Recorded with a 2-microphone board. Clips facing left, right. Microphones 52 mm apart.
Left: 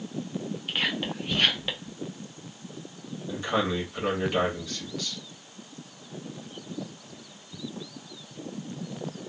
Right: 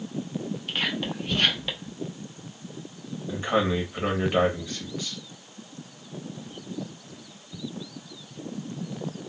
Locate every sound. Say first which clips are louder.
0.7 s whispering: even; 10° left (ahead or behind), 0.8 m
3.3 s a man speaking: right 3 dB; 20° right (ahead or behind), 1.1 m